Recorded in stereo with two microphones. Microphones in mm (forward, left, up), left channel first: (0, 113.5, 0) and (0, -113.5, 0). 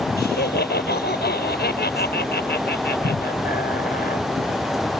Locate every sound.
0.2 s laughter: 50° left (ahead or behind)